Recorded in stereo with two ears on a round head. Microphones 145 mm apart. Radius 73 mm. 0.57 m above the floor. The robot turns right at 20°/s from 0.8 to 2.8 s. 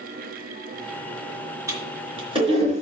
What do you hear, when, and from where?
1.7 s a toilet flushing: 20° right (ahead or behind), 3.5 m; by 2.8 s 45° right (ahead or behind), 3.5 m